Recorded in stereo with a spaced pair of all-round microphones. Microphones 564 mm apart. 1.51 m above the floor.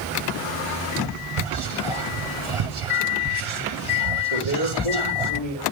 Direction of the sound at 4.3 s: 65° left (ahead or behind).